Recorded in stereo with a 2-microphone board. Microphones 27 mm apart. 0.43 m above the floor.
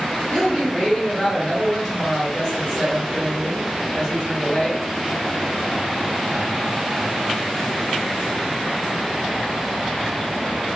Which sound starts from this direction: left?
A woman speaking, at 0.3 s.